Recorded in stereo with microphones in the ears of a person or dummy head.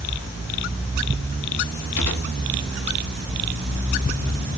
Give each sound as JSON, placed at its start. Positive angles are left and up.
{"t": 2.0, "sound": "a gunshot", "side_deg": 65, "distance_m": 2.5}